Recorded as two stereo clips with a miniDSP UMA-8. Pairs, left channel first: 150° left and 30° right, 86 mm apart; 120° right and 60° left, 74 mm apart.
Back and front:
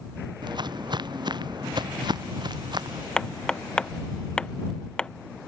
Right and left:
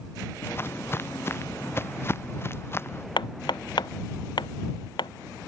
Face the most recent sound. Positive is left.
turn(degrees=-130)